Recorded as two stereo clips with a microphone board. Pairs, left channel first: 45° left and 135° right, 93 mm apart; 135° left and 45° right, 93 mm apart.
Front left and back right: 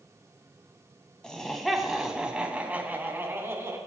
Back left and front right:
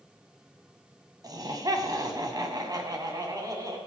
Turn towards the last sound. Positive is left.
turn(degrees=-85)